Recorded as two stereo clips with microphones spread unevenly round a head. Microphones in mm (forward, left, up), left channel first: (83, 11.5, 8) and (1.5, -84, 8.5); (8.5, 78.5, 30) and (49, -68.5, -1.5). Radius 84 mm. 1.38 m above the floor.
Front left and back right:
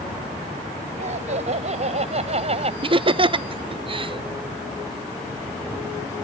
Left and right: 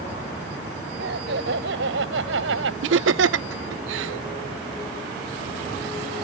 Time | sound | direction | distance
1.0 | laughter | 105° right | ?
2.8 | laughter | 85° right | ?